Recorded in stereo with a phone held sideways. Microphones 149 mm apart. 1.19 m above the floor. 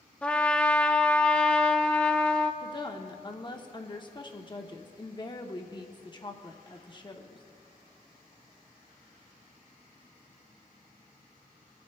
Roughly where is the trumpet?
Centre.